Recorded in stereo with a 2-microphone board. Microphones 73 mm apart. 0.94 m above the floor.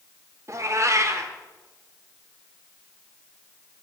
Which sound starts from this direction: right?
A cat meowing, at 0.5 s.